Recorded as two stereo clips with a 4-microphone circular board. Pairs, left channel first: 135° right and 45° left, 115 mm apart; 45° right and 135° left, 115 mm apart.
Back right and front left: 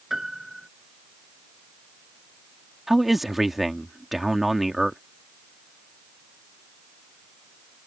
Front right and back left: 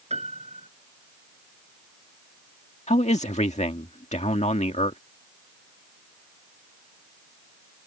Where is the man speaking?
45° right.